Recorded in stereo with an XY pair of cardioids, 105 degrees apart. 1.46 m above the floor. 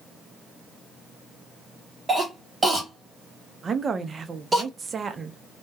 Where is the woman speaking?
35° right, 0.5 m.